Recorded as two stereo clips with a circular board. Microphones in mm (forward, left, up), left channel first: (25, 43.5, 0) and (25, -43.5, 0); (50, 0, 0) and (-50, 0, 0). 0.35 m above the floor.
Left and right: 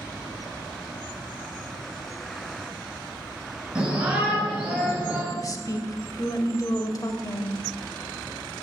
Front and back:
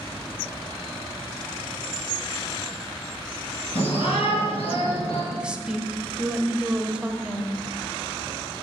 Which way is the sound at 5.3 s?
105° left.